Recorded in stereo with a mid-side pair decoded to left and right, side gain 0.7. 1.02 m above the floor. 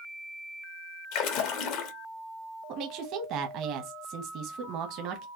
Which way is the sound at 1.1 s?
65° left.